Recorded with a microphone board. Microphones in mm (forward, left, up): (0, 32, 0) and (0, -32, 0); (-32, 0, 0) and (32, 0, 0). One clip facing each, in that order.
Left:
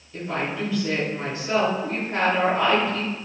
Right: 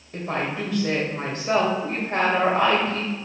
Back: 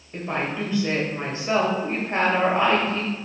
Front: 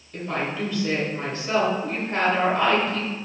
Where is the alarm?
No alarm in this recording.